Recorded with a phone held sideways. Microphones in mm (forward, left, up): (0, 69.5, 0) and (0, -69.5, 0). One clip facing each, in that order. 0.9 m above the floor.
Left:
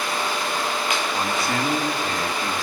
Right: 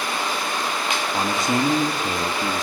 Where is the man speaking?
20° right (ahead or behind), 2 m.